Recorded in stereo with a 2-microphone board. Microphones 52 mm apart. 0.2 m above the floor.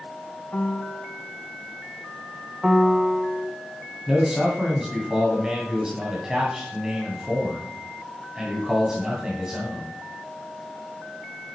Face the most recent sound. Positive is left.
turn(degrees=-10)  # may be behind; listen again after turning